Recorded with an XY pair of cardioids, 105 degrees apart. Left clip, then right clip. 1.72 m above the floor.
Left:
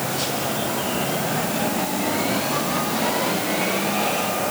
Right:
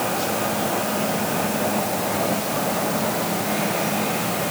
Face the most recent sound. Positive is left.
No sound to turn to.